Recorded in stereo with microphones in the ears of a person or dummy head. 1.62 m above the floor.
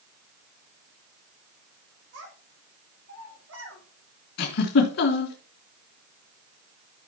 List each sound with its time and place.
2.1 s a child speaking: 80° right, 5 m
4.4 s a giggle: 60° left (ahead or behind), 2.5 m